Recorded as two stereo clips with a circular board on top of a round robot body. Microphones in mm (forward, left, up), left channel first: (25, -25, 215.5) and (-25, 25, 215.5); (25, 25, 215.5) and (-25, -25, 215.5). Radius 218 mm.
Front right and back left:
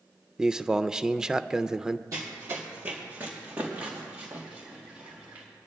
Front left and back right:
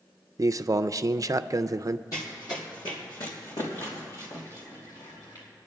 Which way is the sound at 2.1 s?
90° left.